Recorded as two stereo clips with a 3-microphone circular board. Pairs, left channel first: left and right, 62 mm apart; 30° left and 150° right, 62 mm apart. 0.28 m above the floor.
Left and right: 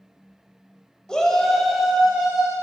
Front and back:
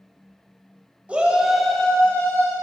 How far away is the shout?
About 1.1 m.